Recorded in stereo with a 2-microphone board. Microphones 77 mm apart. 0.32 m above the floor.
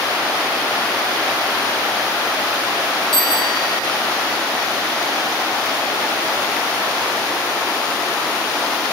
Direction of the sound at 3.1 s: 75° left (ahead or behind).